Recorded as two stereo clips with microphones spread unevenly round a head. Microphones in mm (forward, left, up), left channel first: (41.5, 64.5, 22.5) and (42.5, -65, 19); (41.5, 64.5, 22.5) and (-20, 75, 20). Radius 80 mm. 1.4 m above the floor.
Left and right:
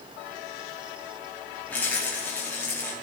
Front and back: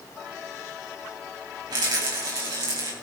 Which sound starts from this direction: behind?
A rattle, at 1.7 s.